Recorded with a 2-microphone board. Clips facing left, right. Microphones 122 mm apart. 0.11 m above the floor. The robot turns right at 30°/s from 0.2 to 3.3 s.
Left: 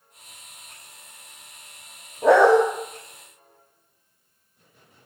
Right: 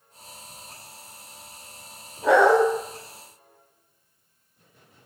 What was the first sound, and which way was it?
A dog barking, 45° left (ahead or behind).